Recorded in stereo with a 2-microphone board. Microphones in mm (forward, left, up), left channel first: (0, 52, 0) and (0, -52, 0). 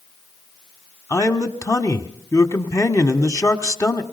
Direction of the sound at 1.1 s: 30° left (ahead or behind).